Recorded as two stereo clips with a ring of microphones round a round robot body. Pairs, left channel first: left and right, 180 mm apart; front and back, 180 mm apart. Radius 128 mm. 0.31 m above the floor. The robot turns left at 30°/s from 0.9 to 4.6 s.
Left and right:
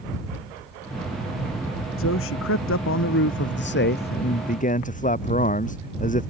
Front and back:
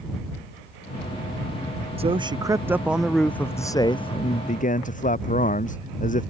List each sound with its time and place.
2.0 s a man speaking: 125° left; by 6.3 s 45° left